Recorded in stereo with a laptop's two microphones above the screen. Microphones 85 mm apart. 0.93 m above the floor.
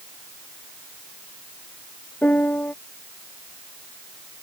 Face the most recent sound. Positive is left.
turn(degrees=20)  # may be behind; listen again after turning